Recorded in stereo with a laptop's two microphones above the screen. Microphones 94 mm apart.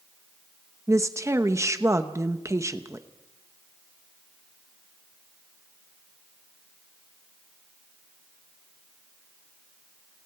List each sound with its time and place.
0.9 s a woman speaking: 30° right (ahead or behind), 1.0 m